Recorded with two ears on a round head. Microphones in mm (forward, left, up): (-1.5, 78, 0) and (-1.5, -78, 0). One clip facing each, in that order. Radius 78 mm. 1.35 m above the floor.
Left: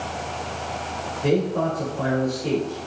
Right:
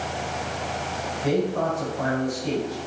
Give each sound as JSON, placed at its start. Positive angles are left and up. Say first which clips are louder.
{"t": 1.2, "sound": "a man speaking", "louder": "left 2 dB", "side_deg": 50, "distance_m": 4.0}